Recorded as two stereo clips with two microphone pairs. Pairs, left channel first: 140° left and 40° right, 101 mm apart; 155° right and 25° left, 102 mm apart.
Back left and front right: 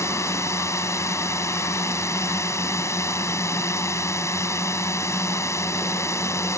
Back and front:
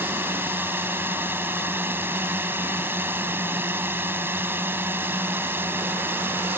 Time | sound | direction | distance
0.0 | a drone | 90° left | ?